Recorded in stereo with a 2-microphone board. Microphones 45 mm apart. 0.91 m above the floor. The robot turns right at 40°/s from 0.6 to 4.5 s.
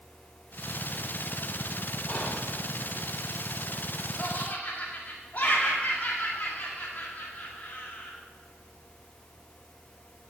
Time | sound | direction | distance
2.1 | whispering | 25° left (ahead or behind) | 2.5 m
4.2 | laughter | 25° left (ahead or behind) | 2.0 m